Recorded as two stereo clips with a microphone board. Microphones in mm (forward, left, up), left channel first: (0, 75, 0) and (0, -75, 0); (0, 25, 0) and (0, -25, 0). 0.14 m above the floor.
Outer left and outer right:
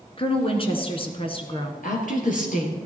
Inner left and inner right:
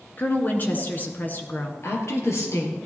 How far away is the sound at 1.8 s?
About 3 m.